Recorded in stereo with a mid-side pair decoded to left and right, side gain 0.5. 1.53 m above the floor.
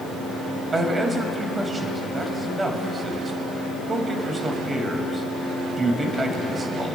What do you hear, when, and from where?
0.7 s a man speaking: 25° right, 2 m